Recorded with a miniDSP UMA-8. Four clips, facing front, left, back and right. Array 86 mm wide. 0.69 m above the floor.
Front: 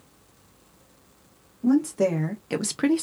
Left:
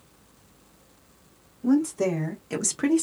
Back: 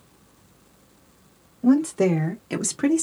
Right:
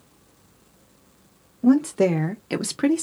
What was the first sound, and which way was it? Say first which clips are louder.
A woman speaking: right 4 dB, back 2 dB; 110° right.